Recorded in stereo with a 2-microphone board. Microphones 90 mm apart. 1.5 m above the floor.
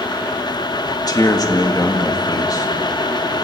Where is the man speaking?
45° left (ahead or behind), 2 m.